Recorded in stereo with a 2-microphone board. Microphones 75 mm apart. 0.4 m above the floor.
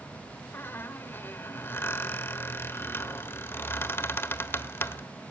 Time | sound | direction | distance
0.5 | a squeak | 30° left (ahead or behind) | 1.1 m